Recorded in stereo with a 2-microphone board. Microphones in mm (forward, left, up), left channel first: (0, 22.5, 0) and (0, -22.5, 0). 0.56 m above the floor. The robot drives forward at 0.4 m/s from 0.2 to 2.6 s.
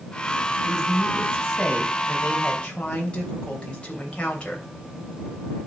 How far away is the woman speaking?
About 4 m.